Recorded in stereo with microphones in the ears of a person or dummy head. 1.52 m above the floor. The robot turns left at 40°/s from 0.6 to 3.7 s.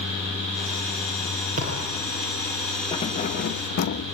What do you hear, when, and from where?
1.6 s a thud: 40° right (ahead or behind), 8.5 m; by 2.0 s 25° right (ahead or behind), 8.5 m
2.9 s keys jangling: 150° left, 1.8 m; by 4.0 s 120° left, 1.8 m